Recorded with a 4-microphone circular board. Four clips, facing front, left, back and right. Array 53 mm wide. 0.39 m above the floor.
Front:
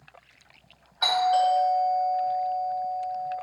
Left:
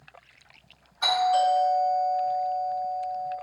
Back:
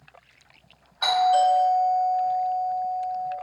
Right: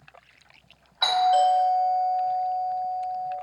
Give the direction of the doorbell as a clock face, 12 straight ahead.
3 o'clock.